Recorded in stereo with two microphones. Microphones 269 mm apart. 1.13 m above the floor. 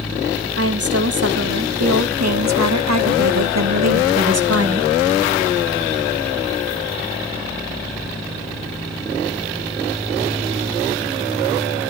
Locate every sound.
0.5 s a woman speaking: 60° right (ahead or behind), 3 m